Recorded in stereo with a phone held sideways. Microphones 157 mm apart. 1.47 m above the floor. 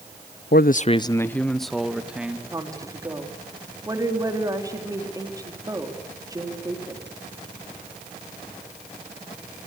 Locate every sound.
0.5 s a man speaking: 85° left, 0.6 m; by 2.4 s 10° right (ahead or behind), 2 m
2.5 s a woman speaking: 20° right (ahead or behind), 3.5 m